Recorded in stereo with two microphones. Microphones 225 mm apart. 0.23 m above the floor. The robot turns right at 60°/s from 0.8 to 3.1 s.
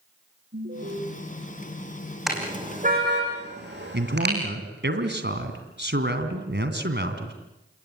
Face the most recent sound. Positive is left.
turn(degrees=-50)  # may be behind; listen again after turning